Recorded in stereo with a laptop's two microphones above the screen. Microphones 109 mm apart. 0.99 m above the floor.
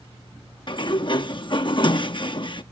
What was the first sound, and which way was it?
A sliding door, 45° left (ahead or behind).